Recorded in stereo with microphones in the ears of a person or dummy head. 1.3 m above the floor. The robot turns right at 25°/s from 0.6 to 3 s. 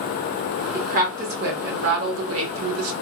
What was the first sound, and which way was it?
A woman speaking, 145° right.